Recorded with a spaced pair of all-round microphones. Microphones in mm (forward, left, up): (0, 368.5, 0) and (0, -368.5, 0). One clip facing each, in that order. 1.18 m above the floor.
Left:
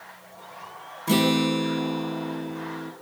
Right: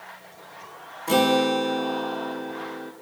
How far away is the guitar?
About 3 m.